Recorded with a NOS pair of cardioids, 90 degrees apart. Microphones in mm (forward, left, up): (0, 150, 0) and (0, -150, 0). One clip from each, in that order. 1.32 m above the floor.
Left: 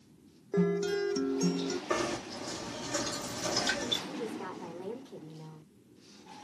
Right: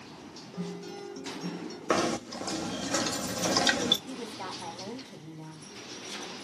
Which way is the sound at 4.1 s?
60° right.